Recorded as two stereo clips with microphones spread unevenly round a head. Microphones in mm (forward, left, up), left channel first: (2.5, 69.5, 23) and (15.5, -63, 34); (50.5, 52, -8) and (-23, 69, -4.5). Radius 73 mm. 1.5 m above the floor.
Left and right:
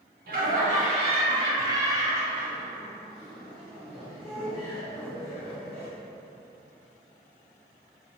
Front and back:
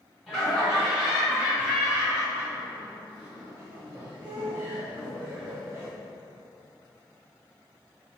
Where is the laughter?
105° right, 1.1 m; by 5.9 s straight behind, 3.5 m.